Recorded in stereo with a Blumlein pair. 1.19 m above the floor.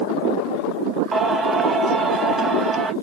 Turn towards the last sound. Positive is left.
turn(degrees=-10)